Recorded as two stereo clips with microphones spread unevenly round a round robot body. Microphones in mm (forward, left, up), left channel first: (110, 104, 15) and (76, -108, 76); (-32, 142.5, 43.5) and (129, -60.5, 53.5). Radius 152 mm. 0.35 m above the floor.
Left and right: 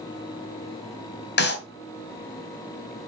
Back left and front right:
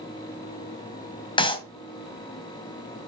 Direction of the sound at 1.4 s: 60° left.